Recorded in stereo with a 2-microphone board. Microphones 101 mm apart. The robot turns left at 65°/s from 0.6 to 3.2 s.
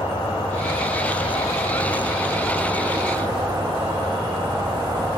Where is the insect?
120° left, 0.9 m; by 5.2 s 50° right, 0.9 m.